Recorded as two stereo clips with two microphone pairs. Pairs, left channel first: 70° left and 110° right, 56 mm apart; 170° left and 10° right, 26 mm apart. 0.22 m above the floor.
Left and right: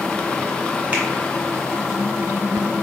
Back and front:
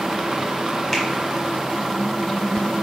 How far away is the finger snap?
About 1.0 m.